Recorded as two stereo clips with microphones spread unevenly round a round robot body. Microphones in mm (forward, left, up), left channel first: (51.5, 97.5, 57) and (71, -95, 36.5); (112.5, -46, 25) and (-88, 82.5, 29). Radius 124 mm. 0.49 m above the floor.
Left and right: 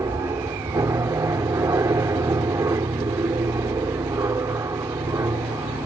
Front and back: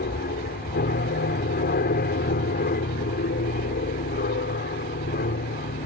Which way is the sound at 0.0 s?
20° right.